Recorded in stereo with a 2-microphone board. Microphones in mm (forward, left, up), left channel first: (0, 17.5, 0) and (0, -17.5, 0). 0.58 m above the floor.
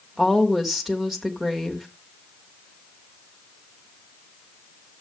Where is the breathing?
No breathing in this recording.